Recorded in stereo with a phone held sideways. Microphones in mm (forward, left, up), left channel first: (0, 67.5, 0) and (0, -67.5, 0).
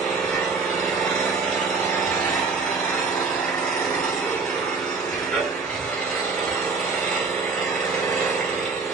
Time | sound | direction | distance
0.0 | an engine running | 5° left (ahead or behind) | 1.8 m